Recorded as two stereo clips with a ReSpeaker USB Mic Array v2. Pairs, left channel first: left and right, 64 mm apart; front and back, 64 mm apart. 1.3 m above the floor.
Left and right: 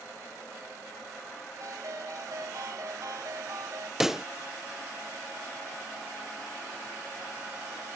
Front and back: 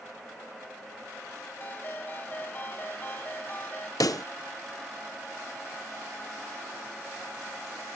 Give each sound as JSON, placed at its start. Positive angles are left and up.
{"t": 1.6, "sound": "a ringtone", "azimuth_deg": -60}
{"t": 4.0, "sound": "a pop", "azimuth_deg": -10}